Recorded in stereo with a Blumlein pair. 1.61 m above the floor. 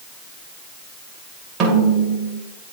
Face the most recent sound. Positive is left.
turn(degrees=-30)